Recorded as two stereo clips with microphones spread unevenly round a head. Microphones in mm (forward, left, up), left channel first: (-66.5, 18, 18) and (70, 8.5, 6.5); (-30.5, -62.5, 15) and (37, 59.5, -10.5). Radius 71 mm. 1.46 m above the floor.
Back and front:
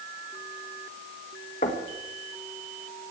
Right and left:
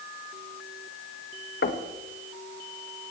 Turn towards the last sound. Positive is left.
turn(degrees=-135)